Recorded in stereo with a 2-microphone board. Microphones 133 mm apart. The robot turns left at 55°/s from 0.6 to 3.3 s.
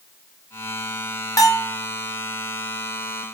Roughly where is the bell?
Left.